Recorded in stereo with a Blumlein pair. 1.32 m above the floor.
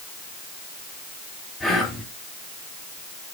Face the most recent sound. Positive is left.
turn(degrees=5)